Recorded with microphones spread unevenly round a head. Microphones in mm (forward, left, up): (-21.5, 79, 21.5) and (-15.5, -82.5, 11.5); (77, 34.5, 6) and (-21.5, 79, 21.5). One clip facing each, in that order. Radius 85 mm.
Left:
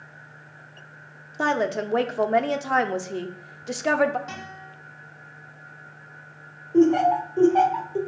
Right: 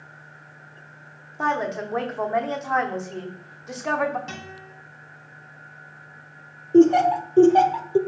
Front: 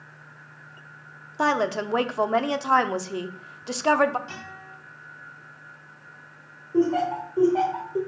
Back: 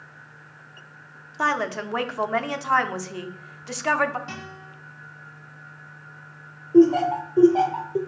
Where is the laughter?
135° right, 0.9 m.